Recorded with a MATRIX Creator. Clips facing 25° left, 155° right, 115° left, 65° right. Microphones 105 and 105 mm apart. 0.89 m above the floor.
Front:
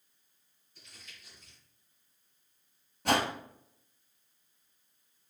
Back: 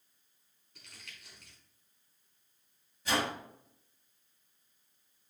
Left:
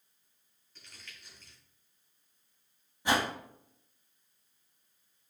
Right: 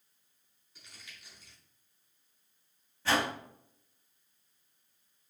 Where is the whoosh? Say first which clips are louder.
Front 4 dB, left 1 dB; 40° left, 1.4 m.